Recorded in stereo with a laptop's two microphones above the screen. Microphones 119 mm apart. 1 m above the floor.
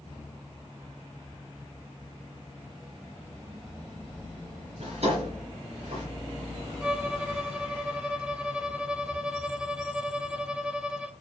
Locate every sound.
4.8 s a drawer: 60° right (ahead or behind), 6.5 m
6.8 s a violin: 10° right (ahead or behind), 0.7 m